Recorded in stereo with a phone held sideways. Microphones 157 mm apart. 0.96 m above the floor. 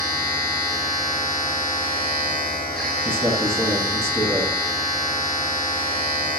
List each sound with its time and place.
0.0 s a machine running: 90° right, 2 m
3.0 s a man speaking: 15° right (ahead or behind), 0.8 m